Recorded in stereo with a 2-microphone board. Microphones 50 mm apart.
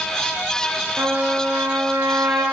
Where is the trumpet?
60° right (ahead or behind), 9 m.